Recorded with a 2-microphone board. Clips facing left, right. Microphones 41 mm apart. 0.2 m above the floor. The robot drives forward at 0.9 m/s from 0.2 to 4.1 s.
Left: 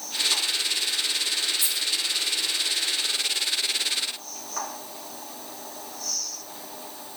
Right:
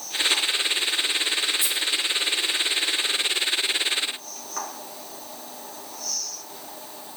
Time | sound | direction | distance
1.6 | a dropped coin | 25° left (ahead or behind) | 1.7 m